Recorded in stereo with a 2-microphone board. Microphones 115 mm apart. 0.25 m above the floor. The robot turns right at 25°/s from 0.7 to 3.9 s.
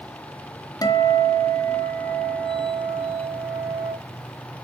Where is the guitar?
130° left, 1.9 m; by 3.9 s 150° right, 1.9 m.